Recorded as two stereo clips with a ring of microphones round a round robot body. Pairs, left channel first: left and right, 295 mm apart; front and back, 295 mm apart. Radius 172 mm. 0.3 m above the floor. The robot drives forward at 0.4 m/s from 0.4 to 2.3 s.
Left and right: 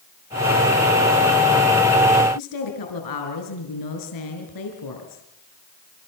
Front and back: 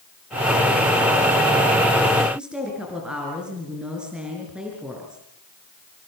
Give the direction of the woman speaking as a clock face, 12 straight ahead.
9 o'clock.